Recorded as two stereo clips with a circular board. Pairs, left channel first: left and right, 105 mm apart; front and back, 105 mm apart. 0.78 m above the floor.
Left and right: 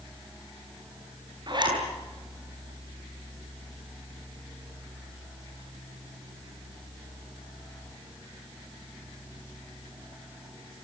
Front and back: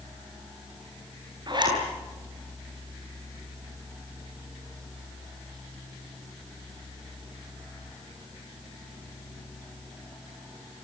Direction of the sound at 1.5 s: 135° right.